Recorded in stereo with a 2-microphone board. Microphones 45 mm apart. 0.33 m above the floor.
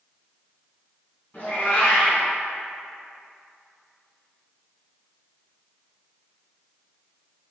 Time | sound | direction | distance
1.3 | a cat meowing | 45° left (ahead or behind) | 1.4 m